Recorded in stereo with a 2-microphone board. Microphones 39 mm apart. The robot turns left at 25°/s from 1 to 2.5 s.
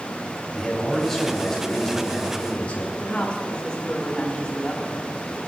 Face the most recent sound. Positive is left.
turn(degrees=30)  # may be behind; listen again after turning